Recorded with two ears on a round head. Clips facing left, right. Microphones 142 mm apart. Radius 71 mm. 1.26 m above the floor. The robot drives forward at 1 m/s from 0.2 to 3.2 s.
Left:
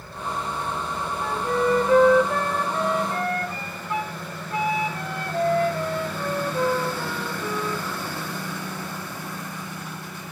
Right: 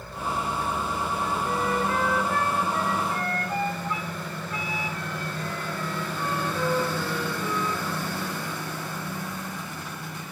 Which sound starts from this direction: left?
A flute, at 1.2 s.